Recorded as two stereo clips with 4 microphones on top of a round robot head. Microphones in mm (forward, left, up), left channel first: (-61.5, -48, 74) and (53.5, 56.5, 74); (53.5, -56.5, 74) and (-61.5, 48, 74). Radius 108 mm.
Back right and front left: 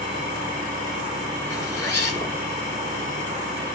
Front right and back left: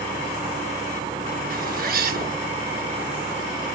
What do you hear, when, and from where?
1.5 s a zipper: 155° left, 1.6 m